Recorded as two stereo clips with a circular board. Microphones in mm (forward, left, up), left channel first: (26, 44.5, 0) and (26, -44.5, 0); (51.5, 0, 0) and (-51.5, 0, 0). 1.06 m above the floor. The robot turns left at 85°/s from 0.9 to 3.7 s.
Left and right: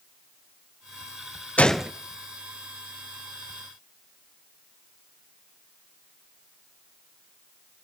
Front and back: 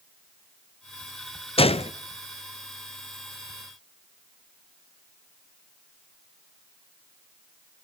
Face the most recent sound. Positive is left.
turn(degrees=-165)